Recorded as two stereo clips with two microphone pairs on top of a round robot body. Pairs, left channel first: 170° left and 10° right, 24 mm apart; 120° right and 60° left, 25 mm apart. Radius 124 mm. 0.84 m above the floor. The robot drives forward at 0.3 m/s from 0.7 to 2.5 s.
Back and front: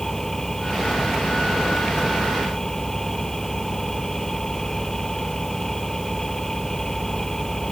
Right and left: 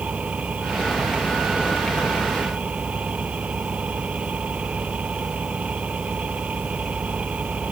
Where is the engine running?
90° left; by 7.7 s 95° left.